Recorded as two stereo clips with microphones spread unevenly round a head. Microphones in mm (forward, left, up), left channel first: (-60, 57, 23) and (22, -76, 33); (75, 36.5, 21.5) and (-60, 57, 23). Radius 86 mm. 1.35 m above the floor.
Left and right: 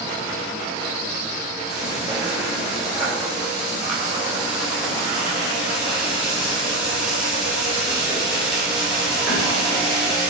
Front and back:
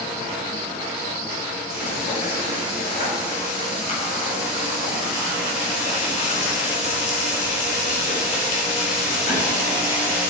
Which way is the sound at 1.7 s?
30° left.